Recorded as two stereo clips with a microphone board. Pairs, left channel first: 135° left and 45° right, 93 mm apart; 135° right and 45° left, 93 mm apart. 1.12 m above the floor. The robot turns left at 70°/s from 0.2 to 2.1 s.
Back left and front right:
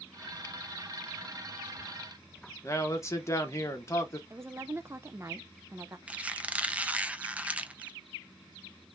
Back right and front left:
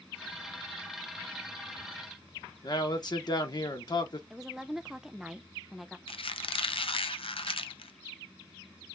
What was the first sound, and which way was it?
A man speaking, 170° right.